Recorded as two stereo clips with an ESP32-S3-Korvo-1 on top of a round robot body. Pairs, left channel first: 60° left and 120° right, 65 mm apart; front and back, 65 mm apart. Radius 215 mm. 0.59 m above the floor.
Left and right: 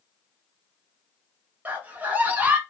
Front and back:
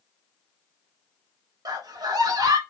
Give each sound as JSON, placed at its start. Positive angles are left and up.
{"t": 1.6, "sound": "a scream", "azimuth_deg": 175, "distance_m": 3.0}